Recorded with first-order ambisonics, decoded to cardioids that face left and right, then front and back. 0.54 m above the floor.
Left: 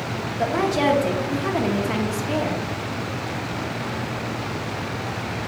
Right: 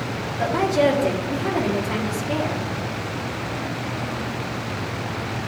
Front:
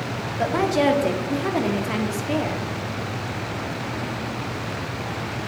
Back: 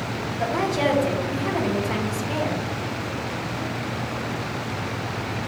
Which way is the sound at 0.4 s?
10° left.